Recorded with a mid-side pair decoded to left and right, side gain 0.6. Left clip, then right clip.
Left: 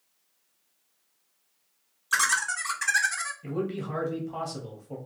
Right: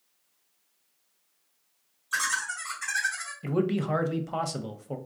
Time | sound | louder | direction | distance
2.1 | laughter | left 4 dB | 60° left | 1.0 m
3.4 | a man speaking | right 4 dB | 45° right | 0.5 m